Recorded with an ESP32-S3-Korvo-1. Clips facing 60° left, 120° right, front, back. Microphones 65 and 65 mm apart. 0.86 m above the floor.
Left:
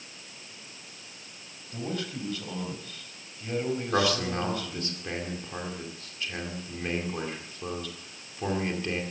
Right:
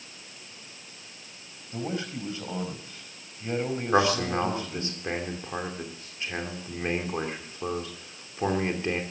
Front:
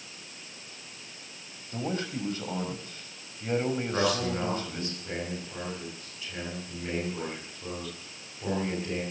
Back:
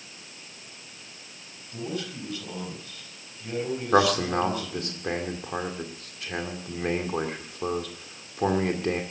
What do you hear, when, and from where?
1.7 s a man speaking: 55° right, 4 m
3.9 s a man speaking: 175° left, 2.5 m